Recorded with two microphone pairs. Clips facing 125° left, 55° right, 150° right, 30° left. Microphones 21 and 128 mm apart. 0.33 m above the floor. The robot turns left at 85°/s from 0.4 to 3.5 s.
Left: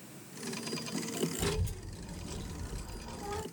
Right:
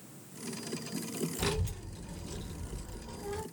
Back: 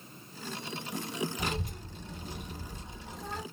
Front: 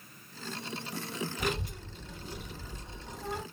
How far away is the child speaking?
About 1.3 m.